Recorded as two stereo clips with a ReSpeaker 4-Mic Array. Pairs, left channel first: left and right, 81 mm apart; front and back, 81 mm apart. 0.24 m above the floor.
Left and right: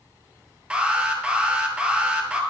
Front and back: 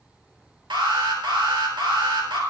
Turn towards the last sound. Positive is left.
turn(degrees=-165)